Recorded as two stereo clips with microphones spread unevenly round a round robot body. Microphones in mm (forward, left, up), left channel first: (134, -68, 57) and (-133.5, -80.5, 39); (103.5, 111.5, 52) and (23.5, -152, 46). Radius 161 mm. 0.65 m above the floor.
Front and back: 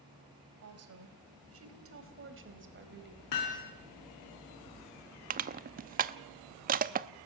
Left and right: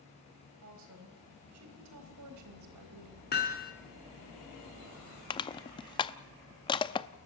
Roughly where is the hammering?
Ahead.